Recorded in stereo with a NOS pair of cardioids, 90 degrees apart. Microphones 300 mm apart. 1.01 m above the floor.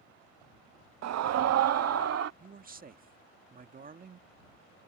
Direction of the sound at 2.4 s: 30° right.